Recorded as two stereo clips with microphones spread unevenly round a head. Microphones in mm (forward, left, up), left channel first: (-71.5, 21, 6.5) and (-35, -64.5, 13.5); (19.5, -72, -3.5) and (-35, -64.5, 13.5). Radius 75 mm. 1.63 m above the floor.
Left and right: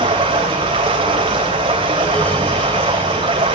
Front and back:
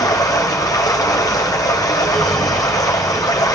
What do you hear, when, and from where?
0.0 s running water: 20° right, 3 m